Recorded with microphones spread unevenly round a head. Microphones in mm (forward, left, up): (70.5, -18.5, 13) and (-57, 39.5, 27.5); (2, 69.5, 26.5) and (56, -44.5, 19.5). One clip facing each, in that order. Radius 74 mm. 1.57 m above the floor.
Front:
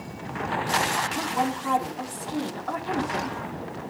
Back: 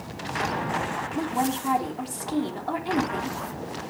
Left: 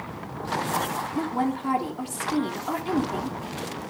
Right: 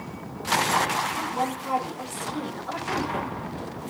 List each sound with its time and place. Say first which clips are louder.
1.1 s a woman speaking: back 4 dB, left 2 dB; 90° left, 3.5 m